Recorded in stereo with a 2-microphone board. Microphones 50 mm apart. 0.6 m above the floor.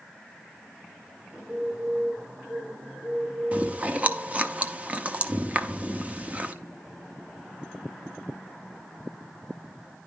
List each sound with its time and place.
1.3 s a bird: 30° right (ahead or behind), 7 m
3.5 s chewing: 30° right (ahead or behind), 0.7 m